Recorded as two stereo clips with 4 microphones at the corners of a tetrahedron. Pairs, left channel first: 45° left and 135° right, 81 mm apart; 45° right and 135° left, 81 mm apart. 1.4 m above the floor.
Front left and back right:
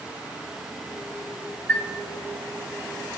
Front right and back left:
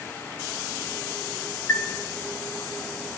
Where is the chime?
5° right, 0.9 m.